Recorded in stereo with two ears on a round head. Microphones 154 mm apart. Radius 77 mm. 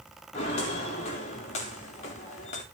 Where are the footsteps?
35° left (ahead or behind), 4.5 m; by 2.6 s 40° left (ahead or behind), 3 m.